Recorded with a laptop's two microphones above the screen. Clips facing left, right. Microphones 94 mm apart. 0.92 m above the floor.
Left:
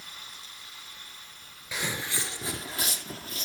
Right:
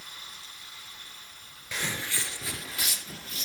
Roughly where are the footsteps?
Centre.